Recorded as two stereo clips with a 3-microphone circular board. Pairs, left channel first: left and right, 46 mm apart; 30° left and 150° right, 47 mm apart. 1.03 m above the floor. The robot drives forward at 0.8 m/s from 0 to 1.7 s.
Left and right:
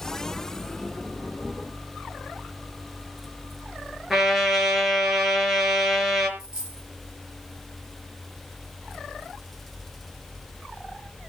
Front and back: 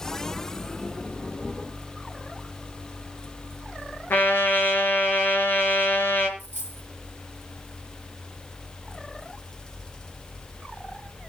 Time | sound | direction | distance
4.1 | a trumpet | 10° right | 4.5 m
6.4 | a dropped coin | 15° right | 9 m